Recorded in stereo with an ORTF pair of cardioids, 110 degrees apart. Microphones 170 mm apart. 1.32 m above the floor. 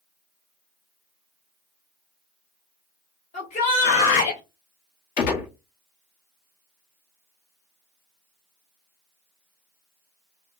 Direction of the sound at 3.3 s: 50° left.